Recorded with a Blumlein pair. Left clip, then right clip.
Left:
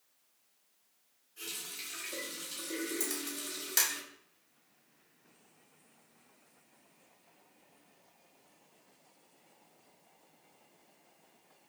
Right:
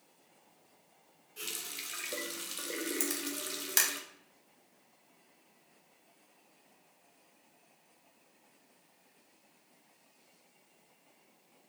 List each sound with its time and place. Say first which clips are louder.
1.4 s a running tap: right 2 dB; 30° right, 0.9 m
3.0 s a camera shutter: right 2 dB; 20° right, 0.9 m